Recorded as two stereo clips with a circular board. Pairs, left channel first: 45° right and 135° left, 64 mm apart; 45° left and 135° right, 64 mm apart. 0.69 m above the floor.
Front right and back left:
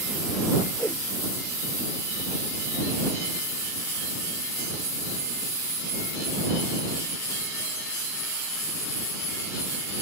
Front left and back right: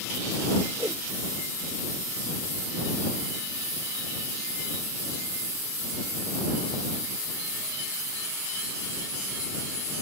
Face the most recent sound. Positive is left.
turn(degrees=-110)